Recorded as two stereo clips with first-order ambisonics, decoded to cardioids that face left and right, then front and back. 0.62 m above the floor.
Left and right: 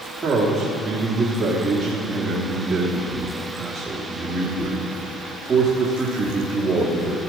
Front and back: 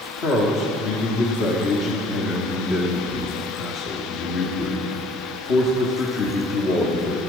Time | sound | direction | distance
0.2 | a man speaking | 15° right | 1.3 m